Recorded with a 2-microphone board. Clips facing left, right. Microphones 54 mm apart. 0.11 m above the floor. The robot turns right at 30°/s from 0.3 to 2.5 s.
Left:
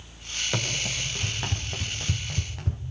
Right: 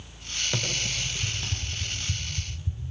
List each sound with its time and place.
0.5 s running footsteps: 10° left (ahead or behind), 7 m; by 2.8 s 75° left (ahead or behind), 4 m